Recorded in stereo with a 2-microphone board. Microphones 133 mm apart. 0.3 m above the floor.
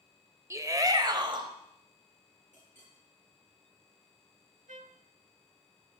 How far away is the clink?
About 4.5 m.